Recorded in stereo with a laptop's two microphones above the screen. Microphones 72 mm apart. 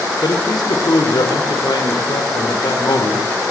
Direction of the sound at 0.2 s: 75° left (ahead or behind).